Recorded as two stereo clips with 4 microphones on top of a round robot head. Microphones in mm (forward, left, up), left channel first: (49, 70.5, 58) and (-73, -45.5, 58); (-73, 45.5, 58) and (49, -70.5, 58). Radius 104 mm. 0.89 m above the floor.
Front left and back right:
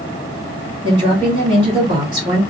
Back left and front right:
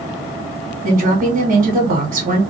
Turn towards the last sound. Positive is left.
turn(degrees=-80)